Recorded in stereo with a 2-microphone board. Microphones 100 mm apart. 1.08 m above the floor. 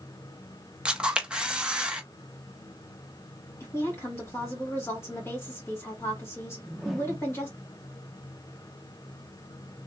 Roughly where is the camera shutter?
Centre.